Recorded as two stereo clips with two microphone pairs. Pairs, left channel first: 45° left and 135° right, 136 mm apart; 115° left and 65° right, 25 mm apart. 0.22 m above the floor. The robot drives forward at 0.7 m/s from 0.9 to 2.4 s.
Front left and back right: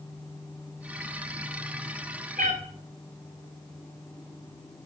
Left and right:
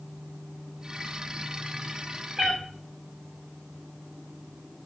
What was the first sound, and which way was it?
A cat meowing, 140° right.